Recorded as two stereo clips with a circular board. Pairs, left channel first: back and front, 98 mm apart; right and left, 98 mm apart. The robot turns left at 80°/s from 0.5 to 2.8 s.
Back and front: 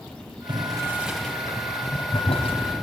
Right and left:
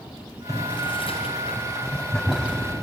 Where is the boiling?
35° right, 3.5 m; by 2.6 s 160° left, 3.5 m.